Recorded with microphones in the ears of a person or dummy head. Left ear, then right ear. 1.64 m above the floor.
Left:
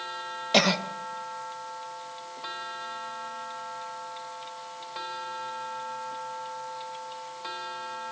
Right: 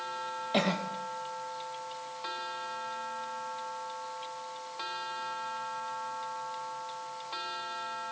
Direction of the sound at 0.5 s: 50° left (ahead or behind).